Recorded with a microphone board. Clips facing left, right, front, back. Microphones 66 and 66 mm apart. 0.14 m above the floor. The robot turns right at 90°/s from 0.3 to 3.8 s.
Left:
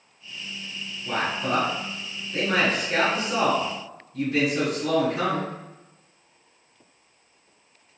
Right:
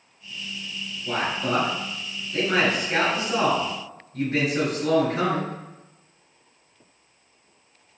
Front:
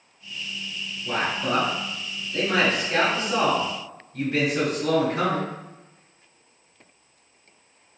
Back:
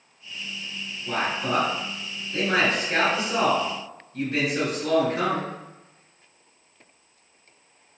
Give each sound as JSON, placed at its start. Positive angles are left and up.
{"t": 1.1, "sound": "a man speaking", "azimuth_deg": 40, "distance_m": 1.6}